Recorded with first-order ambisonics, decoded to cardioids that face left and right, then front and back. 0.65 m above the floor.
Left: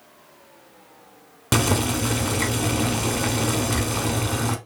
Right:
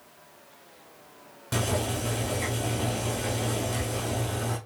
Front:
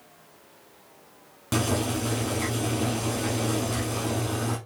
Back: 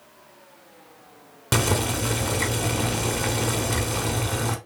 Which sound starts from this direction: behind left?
Boiling, at 1.5 s.